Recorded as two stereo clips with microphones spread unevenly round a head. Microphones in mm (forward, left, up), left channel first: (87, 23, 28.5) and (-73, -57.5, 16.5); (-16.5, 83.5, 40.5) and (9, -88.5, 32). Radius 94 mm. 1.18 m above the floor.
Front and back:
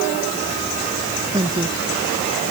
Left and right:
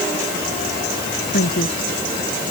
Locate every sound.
1.3 s a woman speaking: 135° left